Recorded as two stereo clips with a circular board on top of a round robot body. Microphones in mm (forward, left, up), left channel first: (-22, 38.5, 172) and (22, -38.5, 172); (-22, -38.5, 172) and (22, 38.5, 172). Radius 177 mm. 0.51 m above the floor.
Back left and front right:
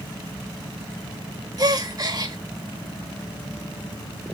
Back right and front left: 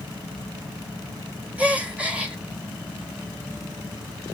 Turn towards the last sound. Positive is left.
turn(degrees=-15)